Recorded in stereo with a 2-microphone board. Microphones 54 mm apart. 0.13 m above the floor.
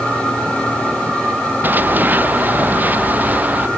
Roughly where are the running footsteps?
Right.